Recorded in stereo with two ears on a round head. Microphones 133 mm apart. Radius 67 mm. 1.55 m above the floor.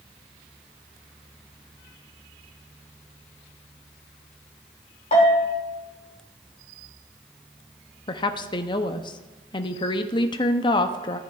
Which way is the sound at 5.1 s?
45° left (ahead or behind).